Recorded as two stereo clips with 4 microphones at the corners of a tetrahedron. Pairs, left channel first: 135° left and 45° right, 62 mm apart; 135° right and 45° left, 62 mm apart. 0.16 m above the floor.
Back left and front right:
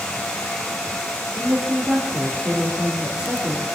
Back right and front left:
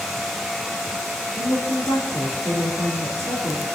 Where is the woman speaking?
120° right, 3 m.